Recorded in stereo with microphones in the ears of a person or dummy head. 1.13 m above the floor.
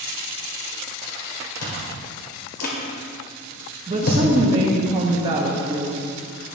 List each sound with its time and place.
1.6 s chewing: 55° left (ahead or behind), 1.7 m
3.9 s a woman speaking: 30° right (ahead or behind), 1.0 m